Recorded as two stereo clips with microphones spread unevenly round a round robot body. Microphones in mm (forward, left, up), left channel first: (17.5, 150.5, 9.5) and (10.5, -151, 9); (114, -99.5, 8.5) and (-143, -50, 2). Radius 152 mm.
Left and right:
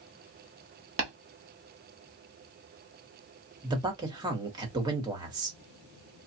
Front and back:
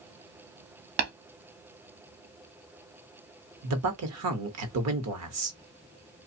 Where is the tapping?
160° right, 1.5 m.